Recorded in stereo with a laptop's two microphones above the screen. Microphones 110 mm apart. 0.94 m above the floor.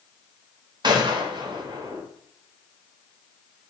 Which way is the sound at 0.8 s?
40° right (ahead or behind).